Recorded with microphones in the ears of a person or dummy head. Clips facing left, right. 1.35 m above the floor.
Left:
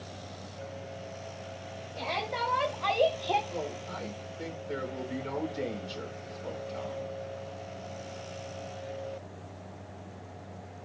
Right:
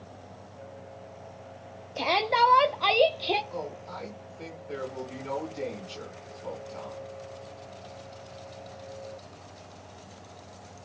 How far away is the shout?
About 1.0 m.